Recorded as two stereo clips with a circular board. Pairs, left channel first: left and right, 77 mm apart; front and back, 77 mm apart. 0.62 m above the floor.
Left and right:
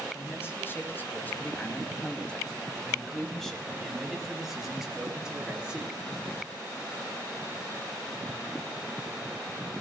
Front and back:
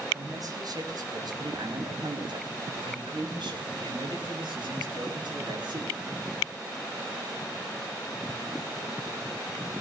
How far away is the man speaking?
About 4 m.